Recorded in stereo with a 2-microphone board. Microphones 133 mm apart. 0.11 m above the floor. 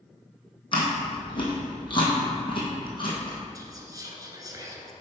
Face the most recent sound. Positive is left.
turn(degrees=-25)  # may be behind; listen again after turning